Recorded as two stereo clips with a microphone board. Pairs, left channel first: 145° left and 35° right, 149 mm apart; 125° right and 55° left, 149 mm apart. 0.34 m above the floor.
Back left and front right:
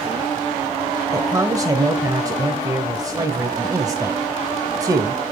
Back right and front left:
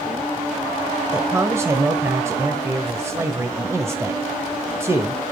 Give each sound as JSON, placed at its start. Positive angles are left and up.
{"t": 1.1, "sound": "a man speaking", "azimuth_deg": 5, "distance_m": 1.1}